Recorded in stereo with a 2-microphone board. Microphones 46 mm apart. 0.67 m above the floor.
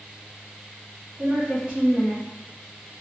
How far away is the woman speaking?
About 0.7 m.